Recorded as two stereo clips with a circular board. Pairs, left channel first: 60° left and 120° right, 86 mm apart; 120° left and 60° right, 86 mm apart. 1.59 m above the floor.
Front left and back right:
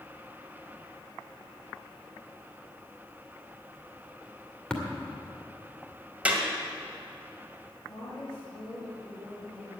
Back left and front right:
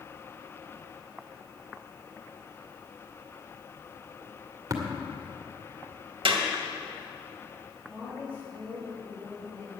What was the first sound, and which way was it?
Tapping, 20° right.